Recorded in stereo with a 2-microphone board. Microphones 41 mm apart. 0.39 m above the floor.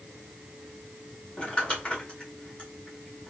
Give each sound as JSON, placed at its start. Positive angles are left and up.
{"t": 1.4, "sound": "crumpling", "side_deg": 30, "distance_m": 1.1}